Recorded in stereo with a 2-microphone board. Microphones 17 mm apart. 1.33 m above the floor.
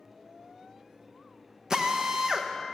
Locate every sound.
1.7 s a drill: 40° right (ahead or behind), 0.7 m